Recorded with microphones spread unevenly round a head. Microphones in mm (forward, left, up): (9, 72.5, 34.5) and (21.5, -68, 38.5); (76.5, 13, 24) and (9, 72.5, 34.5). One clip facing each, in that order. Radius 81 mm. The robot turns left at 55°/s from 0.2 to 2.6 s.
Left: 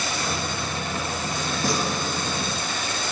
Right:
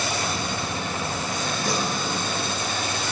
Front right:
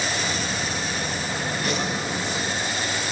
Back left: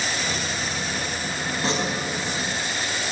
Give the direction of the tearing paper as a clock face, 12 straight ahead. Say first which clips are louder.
Left 3 dB, back left 3 dB; 9 o'clock.